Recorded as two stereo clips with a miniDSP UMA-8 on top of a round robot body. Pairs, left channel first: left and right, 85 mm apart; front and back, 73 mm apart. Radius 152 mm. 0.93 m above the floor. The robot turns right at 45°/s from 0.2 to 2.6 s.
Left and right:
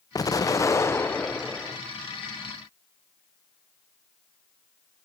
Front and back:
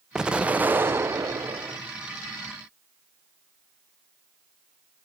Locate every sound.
0.1 s an explosion: 105° left, 0.8 m; by 1.8 s 175° left, 0.8 m